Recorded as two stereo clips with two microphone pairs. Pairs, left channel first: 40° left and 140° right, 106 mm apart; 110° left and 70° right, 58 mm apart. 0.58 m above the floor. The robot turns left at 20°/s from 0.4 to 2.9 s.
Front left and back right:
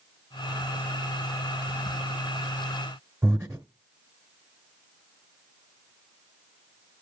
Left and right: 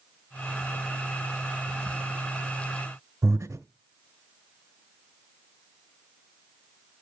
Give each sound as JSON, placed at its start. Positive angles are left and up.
{"t": 3.2, "sound": "breathing", "azimuth_deg": -75, "distance_m": 1.2}